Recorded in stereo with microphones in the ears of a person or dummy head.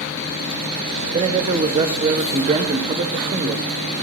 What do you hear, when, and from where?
1.1 s a man speaking: 30° right (ahead or behind), 1.2 m